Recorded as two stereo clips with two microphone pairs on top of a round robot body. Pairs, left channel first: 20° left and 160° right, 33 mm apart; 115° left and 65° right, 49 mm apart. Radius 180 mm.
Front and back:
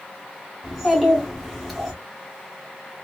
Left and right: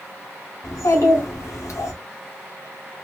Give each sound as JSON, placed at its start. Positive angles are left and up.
{"t": 0.6, "sound": "a child speaking", "azimuth_deg": 100, "distance_m": 2.0}